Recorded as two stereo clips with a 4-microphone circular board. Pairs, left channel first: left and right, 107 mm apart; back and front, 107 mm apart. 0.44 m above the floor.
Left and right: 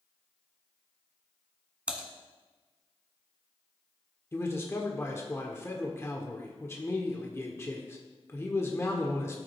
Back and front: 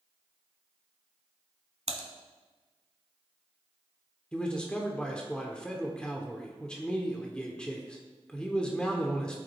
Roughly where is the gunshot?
No gunshot in this recording.